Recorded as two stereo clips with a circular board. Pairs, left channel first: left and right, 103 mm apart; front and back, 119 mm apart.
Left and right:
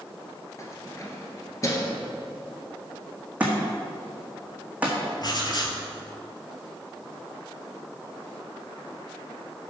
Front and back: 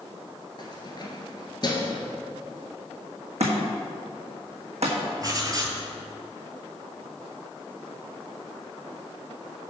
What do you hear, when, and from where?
0.6 s keys jangling: 40° left, 1.4 m
3.4 s a thud: 165° right, 1.7 m
5.2 s writing: 125° left, 0.9 m